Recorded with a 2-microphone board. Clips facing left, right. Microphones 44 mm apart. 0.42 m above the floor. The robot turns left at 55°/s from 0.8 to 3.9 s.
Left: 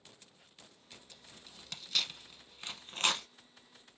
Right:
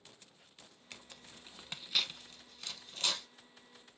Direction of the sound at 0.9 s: 60° right (ahead or behind).